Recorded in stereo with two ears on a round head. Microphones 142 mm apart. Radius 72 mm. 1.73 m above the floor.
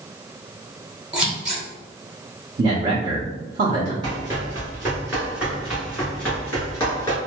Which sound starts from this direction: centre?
Scissors, at 1.1 s.